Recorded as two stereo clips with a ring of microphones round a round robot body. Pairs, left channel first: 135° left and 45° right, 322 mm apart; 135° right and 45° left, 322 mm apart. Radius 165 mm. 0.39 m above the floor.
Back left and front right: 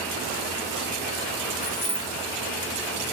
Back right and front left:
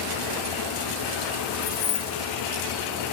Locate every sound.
1.6 s keys jangling: 150° right, 1.3 m